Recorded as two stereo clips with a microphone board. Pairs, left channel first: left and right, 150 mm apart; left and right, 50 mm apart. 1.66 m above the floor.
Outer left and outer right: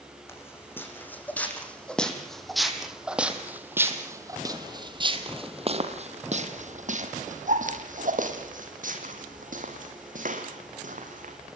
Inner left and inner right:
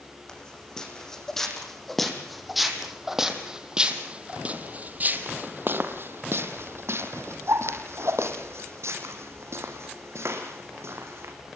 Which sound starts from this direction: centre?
Footsteps, at 0.3 s.